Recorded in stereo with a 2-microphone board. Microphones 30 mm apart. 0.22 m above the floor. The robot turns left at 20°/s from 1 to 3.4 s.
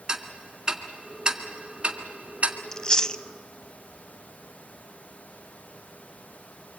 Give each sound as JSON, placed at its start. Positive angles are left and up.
{"t": 0.1, "sound": "ticking", "side_deg": -20, "distance_m": 1.7}
{"t": 2.7, "sound": "chewing", "side_deg": 20, "distance_m": 0.5}